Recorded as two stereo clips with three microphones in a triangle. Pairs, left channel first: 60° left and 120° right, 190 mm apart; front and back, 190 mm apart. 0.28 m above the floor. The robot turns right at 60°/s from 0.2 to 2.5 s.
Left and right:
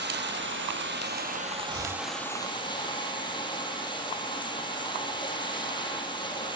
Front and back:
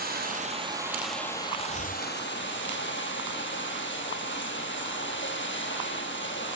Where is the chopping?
65° right, 8 m; by 2.0 s 50° right, 8 m.